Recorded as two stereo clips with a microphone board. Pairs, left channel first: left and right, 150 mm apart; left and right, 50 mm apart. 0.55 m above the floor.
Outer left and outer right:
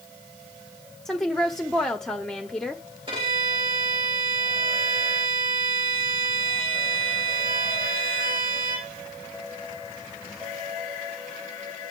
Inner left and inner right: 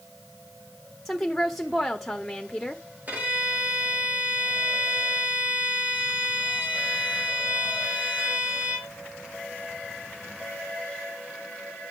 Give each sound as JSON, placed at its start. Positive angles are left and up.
{"t": 1.1, "sound": "a woman speaking", "side_deg": 0, "distance_m": 1.1}
{"t": 3.1, "sound": "a violin", "side_deg": -35, "distance_m": 3.5}